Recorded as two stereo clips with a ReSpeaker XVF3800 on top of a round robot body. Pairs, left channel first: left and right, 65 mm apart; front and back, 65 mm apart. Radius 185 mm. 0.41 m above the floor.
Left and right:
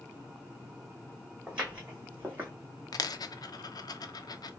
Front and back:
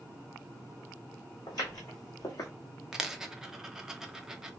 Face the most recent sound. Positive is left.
turn(degrees=100)